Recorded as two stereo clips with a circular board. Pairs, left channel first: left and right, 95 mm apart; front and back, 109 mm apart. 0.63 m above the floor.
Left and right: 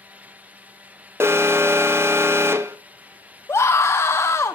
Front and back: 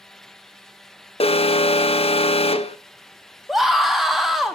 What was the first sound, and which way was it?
An alarm, 25° right.